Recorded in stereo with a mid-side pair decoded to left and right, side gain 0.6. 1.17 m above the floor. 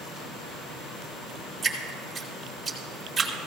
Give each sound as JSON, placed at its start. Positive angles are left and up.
{"t": 1.6, "sound": "dripping", "azimuth_deg": -15, "distance_m": 3.0}